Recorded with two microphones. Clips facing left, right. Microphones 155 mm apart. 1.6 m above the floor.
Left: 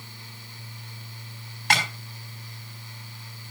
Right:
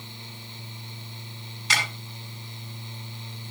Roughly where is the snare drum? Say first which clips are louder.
Left 5 dB; left.